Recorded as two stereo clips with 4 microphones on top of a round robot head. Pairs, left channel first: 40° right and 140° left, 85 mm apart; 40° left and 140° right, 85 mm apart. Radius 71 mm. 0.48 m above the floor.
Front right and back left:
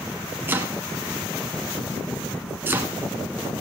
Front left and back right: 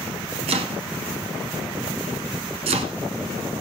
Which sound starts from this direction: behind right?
Chopping, at 0.5 s.